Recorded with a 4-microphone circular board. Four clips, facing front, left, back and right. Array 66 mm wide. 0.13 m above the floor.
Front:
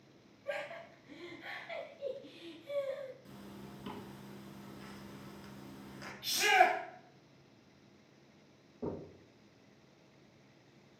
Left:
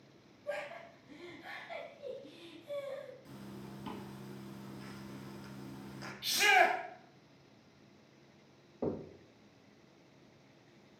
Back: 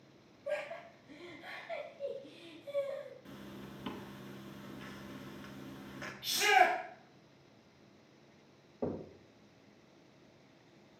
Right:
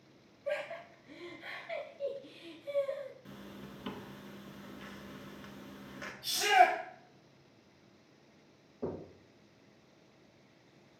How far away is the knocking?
About 2.0 m.